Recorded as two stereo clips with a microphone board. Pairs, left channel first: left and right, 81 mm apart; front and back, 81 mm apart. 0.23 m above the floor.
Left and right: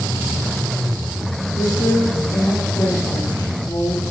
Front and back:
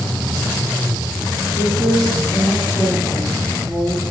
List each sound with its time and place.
1.6 s a woman speaking: 120° left, 7 m